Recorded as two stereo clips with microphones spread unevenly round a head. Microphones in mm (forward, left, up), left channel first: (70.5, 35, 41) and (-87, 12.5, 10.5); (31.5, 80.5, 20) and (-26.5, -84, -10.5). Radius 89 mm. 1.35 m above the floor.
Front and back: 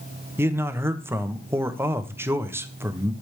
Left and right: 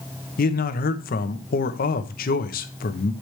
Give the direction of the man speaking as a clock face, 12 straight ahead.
8 o'clock.